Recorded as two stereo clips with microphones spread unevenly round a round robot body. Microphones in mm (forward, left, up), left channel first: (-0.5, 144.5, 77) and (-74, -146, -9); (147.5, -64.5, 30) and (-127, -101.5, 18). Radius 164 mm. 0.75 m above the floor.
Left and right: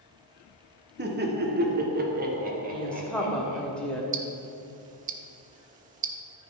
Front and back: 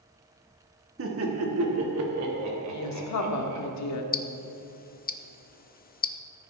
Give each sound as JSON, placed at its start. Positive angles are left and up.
{"t": 1.0, "sound": "laughter", "azimuth_deg": -145, "distance_m": 1.6}
{"t": 2.7, "sound": "a woman speaking", "azimuth_deg": -15, "distance_m": 1.5}
{"t": 4.1, "sound": "ticking", "azimuth_deg": -50, "distance_m": 0.7}